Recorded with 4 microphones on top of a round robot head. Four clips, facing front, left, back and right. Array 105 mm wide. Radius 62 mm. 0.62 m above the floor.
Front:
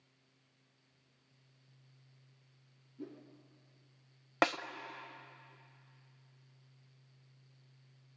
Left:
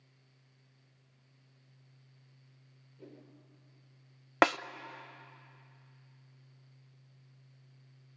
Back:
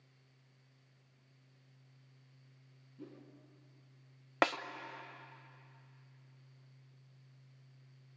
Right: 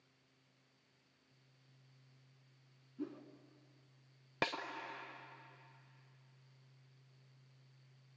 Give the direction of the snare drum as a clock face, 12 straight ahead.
9 o'clock.